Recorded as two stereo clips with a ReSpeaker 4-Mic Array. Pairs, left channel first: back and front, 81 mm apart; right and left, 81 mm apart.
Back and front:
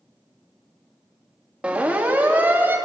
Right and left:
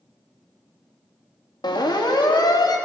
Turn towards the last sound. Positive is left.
turn(degrees=-65)